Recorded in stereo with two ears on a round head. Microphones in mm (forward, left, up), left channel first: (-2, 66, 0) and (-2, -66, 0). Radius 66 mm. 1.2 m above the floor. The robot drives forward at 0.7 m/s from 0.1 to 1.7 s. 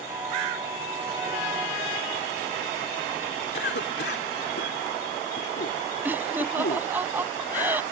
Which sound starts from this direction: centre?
Laughter, at 6.0 s.